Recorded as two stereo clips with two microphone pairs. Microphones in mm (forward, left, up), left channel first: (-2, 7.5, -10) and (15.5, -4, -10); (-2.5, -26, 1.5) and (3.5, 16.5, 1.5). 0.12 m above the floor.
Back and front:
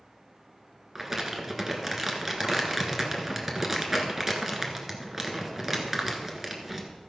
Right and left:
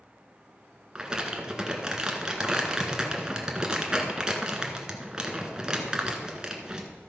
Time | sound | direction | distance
0.9 | crumpling | 25° left | 1.4 m